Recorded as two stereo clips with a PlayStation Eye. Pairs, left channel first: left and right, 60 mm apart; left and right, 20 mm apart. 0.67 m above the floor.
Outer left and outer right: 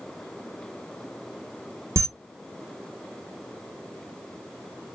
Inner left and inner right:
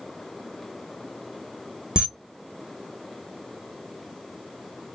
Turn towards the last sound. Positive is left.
turn(degrees=-50)  # may be behind; listen again after turning